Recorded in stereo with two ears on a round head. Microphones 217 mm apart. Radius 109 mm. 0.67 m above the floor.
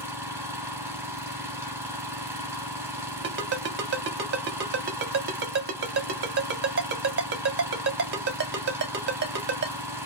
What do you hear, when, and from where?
0.0 s an engine running: 10° right (ahead or behind), 0.9 m
3.2 s a ringtone: 45° right (ahead or behind), 0.9 m